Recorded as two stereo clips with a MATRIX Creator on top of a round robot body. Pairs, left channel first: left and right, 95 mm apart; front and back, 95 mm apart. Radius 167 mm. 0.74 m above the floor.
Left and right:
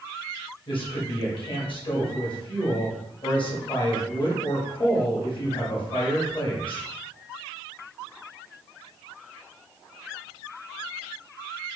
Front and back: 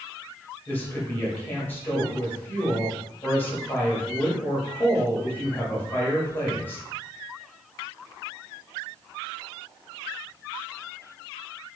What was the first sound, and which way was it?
A woman speaking, 70° left.